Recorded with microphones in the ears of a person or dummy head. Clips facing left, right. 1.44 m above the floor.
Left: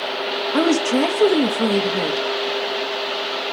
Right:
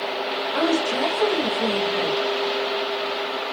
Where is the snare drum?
No snare drum in this recording.